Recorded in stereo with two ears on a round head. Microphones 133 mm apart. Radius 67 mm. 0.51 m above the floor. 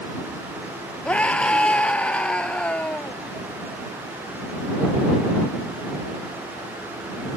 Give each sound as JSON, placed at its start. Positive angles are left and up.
{"t": 1.1, "sound": "a scream", "side_deg": 5}